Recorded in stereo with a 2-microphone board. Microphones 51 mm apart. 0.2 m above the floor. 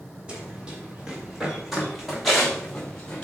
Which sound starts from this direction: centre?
Running footsteps, at 0.3 s.